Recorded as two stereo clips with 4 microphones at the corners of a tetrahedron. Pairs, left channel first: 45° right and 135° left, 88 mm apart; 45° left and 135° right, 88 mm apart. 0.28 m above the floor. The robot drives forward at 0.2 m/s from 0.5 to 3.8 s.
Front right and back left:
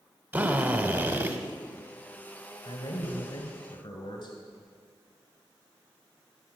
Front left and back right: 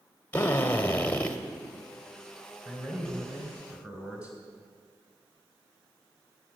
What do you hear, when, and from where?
0.3 s a drill: 90° left, 1.3 m; by 1.4 s 105° left, 1.3 m
2.6 s a man speaking: 60° right, 3 m; by 4.3 s 65° right, 3 m